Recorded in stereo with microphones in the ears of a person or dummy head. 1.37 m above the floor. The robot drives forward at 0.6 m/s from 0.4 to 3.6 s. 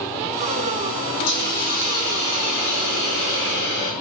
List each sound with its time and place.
1.3 s a hiss: 75° left (ahead or behind), 5 m; by 3.9 s 65° left (ahead or behind), 5.5 m